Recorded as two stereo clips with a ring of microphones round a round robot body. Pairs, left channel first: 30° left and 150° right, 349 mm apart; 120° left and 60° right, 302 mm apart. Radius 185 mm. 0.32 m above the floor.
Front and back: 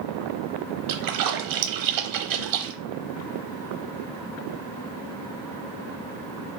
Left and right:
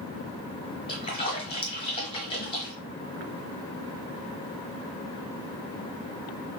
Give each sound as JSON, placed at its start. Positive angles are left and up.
{"t": 0.9, "sound": "a splash", "azimuth_deg": -165, "distance_m": 0.9}